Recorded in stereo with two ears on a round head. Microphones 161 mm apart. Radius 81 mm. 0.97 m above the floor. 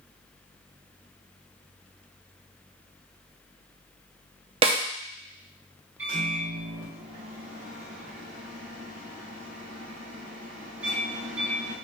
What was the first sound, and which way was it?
A snare drum, 30° right (ahead or behind).